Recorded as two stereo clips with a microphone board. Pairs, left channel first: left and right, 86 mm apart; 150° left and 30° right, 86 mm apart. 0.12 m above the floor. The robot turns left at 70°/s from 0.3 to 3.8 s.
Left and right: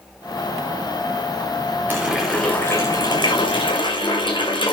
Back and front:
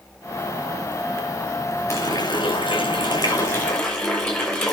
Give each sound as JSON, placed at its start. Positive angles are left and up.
{"t": 1.9, "sound": "a running tap", "azimuth_deg": -160, "distance_m": 8.5}